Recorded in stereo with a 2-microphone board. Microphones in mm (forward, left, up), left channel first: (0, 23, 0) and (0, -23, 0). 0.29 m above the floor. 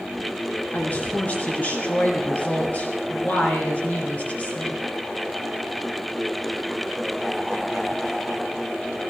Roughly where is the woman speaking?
Left.